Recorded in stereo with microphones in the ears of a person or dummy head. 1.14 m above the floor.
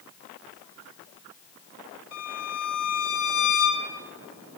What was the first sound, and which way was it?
A violin, 70° left (ahead or behind).